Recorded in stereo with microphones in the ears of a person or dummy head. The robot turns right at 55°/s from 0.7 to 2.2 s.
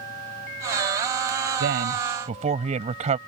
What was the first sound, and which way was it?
A woman speaking, 75° right.